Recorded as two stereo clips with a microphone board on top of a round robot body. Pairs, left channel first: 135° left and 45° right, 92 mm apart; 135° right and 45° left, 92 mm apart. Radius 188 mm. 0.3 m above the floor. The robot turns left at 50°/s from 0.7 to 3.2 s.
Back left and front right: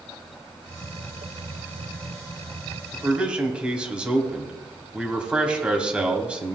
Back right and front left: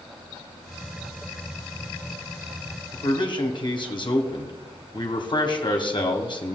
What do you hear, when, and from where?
2.9 s a man speaking: 105° right, 1.8 m; by 6.6 s 120° right, 1.8 m